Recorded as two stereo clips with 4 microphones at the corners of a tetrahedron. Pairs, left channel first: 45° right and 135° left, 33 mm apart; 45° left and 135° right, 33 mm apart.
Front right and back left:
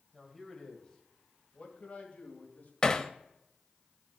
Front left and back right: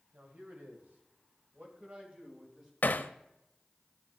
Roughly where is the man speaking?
Behind right.